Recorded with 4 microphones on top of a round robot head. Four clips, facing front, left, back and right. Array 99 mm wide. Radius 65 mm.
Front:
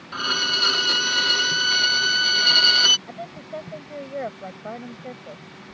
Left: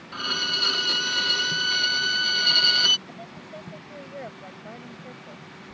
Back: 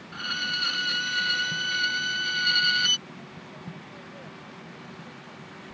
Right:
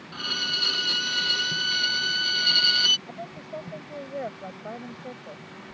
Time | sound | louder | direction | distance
0.1 | a violin | left 3 dB, front 6 dB | 5° left | ?
3.1 | a woman speaking | right 3 dB, front 9 dB | 30° right | ?